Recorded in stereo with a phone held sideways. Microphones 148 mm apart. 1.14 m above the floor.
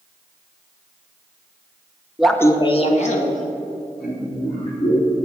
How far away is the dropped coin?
No dropped coin in this recording.